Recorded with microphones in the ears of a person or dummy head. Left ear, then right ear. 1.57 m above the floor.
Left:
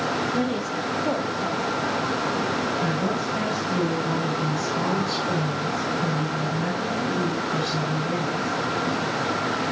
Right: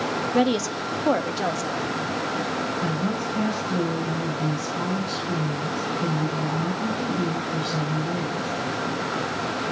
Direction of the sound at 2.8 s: 10° left (ahead or behind).